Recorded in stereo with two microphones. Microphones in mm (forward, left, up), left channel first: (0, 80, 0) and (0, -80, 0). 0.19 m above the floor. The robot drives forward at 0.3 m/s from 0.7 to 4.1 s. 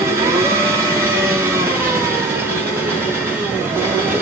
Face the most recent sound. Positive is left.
turn(degrees=-15)  # may be behind; listen again after turning